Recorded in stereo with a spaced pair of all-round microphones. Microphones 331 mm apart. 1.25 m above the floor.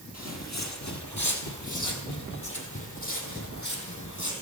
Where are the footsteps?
50° left (ahead or behind), 2 m; by 4.3 s 60° left (ahead or behind), 3.5 m.